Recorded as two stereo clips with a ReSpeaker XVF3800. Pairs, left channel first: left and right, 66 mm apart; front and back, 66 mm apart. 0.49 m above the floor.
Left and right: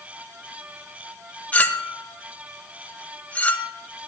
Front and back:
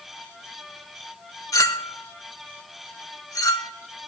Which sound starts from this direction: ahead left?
A clink, at 1.5 s.